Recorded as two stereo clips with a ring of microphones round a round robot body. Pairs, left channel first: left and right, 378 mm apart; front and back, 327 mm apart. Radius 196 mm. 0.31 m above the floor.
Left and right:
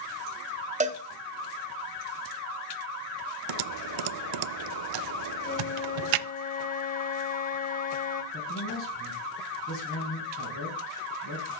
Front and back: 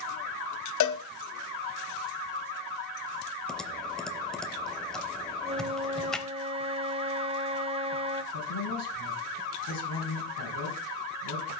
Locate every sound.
0.8 s a cowbell: 20° right, 1.2 m
3.5 s typing on a keyboard: 90° right, 0.5 m
5.4 s a flute: 130° left, 0.8 m
8.3 s a man speaking: 35° left, 3.5 m